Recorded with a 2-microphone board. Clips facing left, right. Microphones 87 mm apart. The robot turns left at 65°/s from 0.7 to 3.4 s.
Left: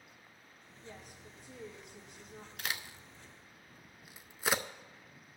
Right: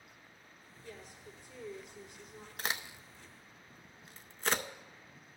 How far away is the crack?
About 0.6 m.